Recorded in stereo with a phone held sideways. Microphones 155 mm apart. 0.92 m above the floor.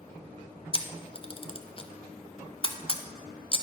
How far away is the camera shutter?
About 0.5 m.